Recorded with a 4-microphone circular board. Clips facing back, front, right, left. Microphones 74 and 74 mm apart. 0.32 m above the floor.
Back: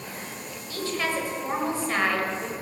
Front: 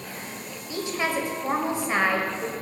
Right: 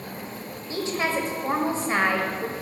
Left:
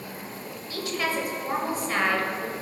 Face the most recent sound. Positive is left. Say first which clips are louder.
# front 1 dB, right 3 dB
turn(degrees=-55)